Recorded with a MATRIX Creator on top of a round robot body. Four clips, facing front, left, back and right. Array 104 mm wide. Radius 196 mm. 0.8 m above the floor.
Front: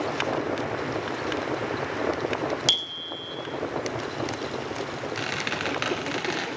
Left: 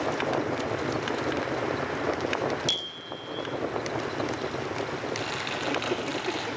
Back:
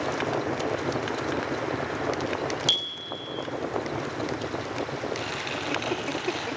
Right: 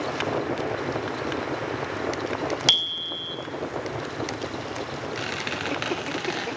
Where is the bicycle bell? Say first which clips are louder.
Right 4 dB, even; 80° right, 2.5 m.